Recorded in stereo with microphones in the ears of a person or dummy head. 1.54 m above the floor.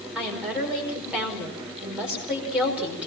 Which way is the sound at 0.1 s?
5° right (ahead or behind).